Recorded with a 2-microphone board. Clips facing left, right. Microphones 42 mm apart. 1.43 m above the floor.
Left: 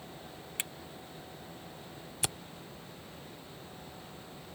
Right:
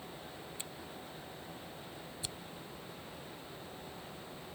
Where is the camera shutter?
75° left (ahead or behind).